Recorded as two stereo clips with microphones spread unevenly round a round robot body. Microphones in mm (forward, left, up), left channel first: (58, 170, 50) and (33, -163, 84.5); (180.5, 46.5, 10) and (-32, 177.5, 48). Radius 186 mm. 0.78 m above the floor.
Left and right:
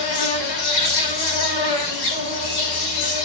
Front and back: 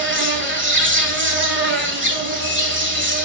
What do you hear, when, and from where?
0.0 s an insect: 105° left, 4 m